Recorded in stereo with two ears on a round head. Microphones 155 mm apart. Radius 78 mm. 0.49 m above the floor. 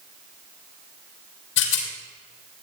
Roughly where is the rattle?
Left.